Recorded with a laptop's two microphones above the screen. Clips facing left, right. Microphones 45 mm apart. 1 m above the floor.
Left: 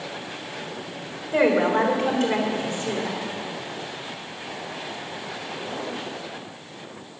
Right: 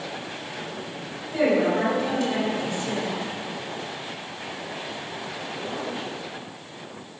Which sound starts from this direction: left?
A woman speaking, at 1.3 s.